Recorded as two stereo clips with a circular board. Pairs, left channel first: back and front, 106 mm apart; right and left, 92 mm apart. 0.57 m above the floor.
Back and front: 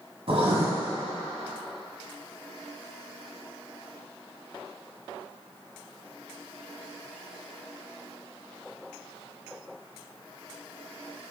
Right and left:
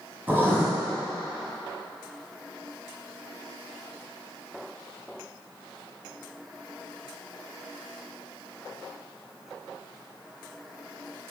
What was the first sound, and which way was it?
Writing, 20° left.